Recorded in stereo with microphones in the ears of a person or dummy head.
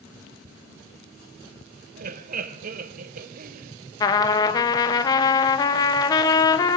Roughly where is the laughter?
Right.